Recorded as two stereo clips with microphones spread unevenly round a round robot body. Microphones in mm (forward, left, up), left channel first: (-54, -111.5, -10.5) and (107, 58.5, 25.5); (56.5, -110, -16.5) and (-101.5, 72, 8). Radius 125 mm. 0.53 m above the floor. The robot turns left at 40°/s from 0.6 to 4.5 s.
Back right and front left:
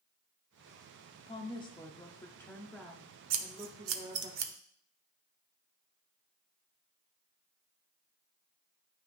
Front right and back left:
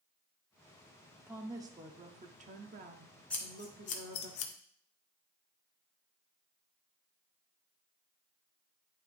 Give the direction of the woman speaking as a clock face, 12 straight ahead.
5 o'clock.